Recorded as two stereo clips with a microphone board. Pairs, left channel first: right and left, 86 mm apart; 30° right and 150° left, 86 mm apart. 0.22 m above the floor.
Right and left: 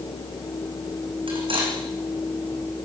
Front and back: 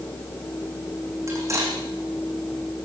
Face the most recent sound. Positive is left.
turn(degrees=95)